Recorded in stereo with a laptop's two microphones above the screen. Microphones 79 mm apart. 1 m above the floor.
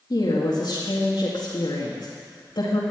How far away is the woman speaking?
About 1.9 m.